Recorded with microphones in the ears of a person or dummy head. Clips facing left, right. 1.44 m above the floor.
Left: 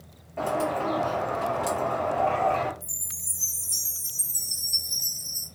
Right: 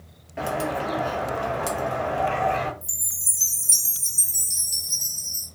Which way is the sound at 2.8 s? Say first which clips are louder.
Right 1 dB; 75° right (ahead or behind).